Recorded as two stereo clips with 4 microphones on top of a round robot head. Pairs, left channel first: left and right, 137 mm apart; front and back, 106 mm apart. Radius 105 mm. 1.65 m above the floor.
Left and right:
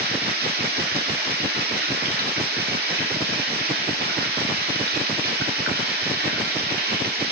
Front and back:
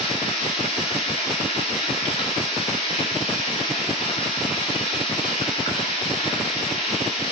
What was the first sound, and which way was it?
Running water, 60° right.